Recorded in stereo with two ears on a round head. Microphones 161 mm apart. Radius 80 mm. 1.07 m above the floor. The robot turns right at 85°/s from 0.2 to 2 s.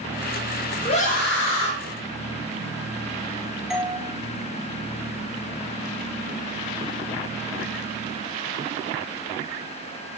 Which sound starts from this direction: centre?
A doorbell, at 3.7 s.